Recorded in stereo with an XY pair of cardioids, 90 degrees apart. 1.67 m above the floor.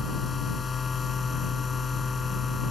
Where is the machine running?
40° left.